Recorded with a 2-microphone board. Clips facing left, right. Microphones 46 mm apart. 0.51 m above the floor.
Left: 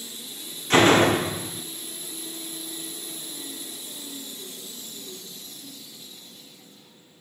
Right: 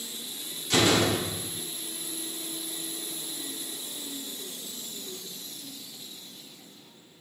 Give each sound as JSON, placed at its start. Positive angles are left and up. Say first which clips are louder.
{"t": 0.7, "sound": "a door slam", "louder": "left 6 dB", "side_deg": 40, "distance_m": 0.7}